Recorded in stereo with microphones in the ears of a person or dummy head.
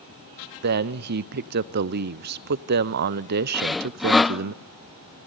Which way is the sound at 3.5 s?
Centre (ahead or behind).